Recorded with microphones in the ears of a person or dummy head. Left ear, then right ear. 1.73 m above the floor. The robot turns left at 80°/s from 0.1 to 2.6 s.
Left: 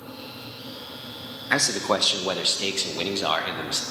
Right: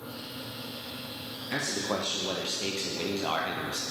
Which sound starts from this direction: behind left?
A man speaking, at 1.5 s.